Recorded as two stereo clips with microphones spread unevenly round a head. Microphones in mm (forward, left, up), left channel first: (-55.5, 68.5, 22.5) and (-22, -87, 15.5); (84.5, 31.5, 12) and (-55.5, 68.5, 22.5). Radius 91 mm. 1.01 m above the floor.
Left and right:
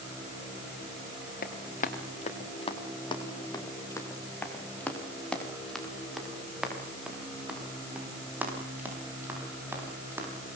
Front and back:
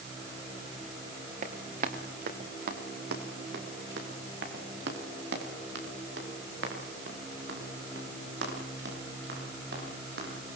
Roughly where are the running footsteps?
Behind left.